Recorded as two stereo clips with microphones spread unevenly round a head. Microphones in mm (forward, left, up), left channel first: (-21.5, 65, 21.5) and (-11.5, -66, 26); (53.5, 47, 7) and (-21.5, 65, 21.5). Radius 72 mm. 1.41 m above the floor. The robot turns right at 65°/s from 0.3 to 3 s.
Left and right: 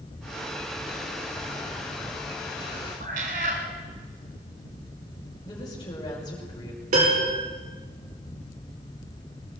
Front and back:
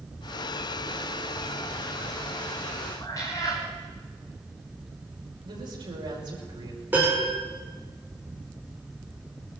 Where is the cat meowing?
80° right, 2.0 m.